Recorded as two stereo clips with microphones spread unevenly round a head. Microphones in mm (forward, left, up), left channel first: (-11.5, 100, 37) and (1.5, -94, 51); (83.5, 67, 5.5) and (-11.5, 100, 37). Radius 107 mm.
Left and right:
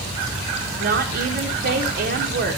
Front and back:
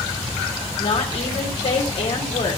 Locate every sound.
0.8 s a woman speaking: 50° right, 1.4 m